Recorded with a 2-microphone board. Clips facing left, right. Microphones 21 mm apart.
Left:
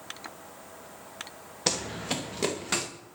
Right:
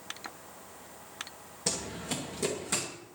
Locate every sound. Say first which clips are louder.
1.7 s running footsteps: left 5 dB; 40° left (ahead or behind), 1.5 m